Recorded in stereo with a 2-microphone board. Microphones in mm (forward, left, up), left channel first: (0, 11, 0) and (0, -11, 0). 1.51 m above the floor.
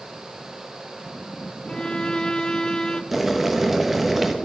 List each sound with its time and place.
1.7 s a violin: 35° left (ahead or behind), 0.7 m
3.1 s boiling: 10° right (ahead or behind), 1.2 m